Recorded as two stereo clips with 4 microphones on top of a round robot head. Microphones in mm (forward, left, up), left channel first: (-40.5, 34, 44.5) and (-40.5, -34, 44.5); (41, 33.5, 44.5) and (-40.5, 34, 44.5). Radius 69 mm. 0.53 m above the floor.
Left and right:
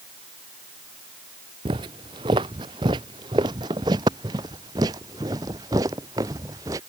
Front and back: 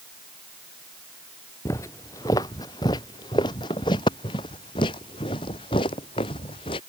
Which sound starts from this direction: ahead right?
Footsteps, at 1.6 s.